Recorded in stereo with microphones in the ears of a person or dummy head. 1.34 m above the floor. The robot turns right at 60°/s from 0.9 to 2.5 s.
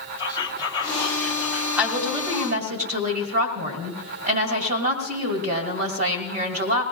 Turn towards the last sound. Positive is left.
turn(degrees=-125)